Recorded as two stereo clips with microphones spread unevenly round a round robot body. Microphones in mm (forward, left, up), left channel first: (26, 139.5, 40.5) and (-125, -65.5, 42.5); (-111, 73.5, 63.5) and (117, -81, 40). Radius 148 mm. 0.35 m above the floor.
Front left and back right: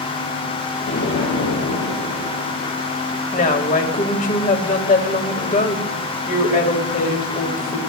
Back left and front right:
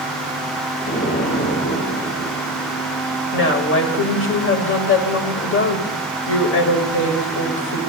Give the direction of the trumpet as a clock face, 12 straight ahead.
I don't hear a trumpet.